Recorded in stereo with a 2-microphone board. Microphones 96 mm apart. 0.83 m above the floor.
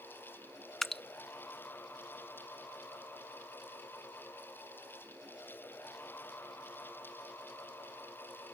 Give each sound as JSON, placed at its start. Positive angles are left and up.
{"t": 0.8, "sound": "dripping", "side_deg": 5}